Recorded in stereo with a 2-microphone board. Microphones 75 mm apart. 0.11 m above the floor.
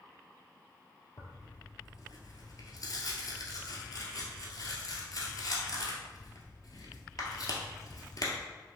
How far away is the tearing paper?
About 1.1 m.